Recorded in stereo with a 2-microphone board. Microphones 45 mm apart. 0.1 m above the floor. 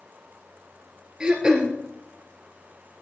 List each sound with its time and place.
1.2 s throat clearing: 20° right (ahead or behind), 1.4 m